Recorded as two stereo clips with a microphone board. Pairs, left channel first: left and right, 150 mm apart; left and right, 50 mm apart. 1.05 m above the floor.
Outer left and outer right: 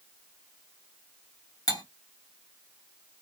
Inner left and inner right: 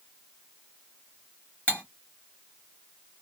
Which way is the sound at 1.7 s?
25° left (ahead or behind).